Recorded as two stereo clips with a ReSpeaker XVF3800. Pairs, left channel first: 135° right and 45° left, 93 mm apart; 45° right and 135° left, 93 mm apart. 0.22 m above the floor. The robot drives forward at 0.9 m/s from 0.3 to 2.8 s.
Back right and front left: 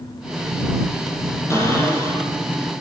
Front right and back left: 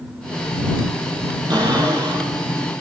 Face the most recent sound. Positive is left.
turn(degrees=170)